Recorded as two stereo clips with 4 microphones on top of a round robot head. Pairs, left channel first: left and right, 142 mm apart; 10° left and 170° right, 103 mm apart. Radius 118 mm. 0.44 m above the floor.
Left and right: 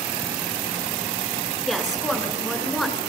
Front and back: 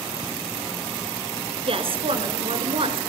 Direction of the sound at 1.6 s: Straight behind.